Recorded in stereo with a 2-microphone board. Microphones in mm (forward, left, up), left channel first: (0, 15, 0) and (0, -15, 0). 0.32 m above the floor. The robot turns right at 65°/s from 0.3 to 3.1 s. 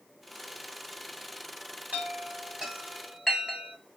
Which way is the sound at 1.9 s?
60° right (ahead or behind).